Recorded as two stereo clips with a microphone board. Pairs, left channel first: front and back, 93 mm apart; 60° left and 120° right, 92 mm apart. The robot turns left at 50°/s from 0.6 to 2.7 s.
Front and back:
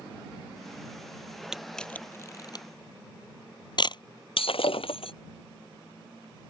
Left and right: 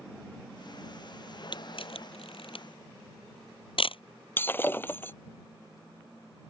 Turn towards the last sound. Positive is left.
turn(degrees=-10)